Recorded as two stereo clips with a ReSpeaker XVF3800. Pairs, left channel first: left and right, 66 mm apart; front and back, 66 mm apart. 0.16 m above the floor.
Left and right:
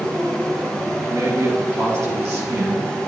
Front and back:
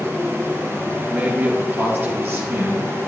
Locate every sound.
1.0 s a man speaking: 115° right, 2 m; by 2.9 s 135° right, 3.5 m